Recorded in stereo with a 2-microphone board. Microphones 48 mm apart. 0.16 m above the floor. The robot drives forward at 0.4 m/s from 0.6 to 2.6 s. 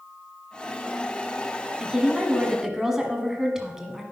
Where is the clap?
I don't hear a clap.